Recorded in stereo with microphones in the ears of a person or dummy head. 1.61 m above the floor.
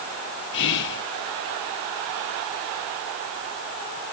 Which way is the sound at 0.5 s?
65° left (ahead or behind).